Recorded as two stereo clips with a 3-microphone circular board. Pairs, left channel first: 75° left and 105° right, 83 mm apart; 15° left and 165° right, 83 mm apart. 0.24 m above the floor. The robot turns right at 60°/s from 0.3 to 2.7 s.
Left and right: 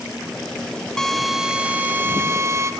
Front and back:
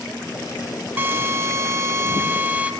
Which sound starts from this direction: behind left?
A drill, at 1.0 s.